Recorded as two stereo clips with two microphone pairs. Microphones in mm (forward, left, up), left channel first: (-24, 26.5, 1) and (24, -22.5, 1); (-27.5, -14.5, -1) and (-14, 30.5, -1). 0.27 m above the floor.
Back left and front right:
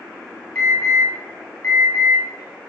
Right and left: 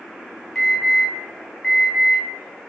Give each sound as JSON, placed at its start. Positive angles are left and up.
{"t": 0.6, "sound": "an alarm", "azimuth_deg": 170, "distance_m": 1.4}